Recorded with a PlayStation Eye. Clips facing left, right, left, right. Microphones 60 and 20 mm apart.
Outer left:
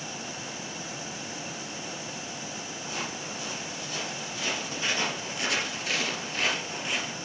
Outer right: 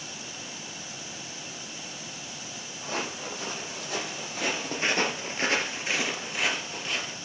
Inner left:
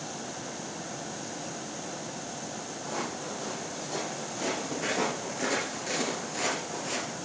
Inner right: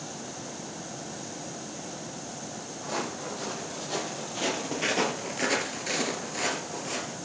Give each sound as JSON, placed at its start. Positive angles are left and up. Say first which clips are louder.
{"t": 2.8, "sound": "footsteps", "louder": "outer right 4 dB, inner right 2 dB", "side_deg": -65, "distance_m": 4.5}